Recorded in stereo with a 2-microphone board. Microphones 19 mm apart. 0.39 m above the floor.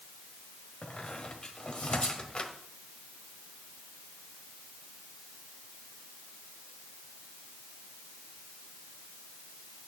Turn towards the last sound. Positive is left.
turn(degrees=60)  # may be behind; listen again after turning